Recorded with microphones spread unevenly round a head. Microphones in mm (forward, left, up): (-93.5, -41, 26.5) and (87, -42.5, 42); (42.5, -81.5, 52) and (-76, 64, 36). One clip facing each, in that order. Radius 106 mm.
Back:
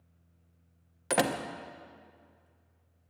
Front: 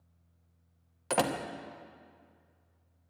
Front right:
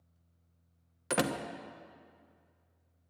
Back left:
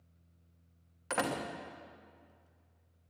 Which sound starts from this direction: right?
A door slam, at 1.1 s.